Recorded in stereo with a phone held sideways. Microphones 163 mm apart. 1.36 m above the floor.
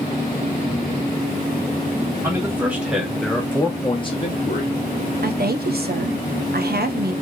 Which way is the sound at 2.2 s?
15° right (ahead or behind).